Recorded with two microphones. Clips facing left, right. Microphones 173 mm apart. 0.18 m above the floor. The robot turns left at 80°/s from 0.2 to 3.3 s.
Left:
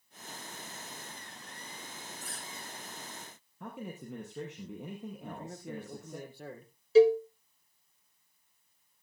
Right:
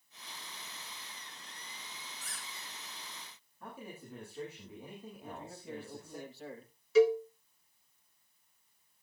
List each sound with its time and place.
2.2 s a squeak: 160° left, 7.5 m; by 2.7 s 115° left, 7.5 m
3.6 s a man speaking: 75° left (ahead or behind), 4.5 m
5.2 s a man speaking: 55° left (ahead or behind), 4.5 m
7.0 s a cowbell: 35° left (ahead or behind), 0.6 m